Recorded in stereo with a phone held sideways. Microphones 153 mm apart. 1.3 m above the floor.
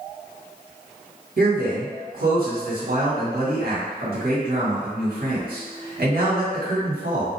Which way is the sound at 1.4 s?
80° right.